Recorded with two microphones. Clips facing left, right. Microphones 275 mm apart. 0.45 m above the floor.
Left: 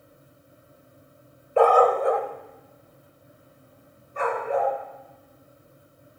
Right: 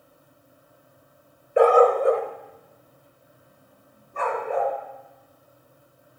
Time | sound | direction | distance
1.6 | a dog barking | 15° right (ahead or behind) | 0.7 m